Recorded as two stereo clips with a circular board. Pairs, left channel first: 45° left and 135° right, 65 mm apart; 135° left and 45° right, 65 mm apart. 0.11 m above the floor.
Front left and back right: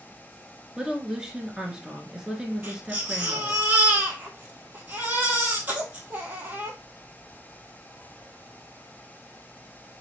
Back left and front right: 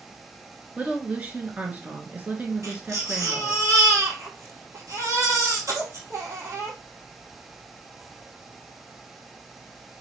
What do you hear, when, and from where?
0.8 s a woman speaking: 75° right, 1.2 m
2.6 s a baby crying: 75° right, 1.5 m